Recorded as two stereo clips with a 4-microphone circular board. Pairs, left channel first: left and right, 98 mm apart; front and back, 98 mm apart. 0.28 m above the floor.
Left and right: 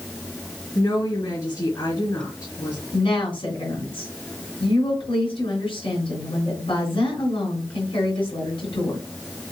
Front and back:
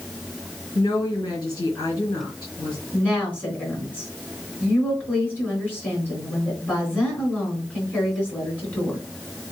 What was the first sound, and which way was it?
A woman speaking, 45° left.